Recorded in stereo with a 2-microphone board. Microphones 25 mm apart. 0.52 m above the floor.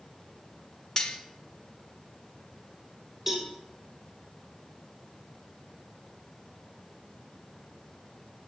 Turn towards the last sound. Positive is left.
turn(degrees=-10)  # may be behind; listen again after turning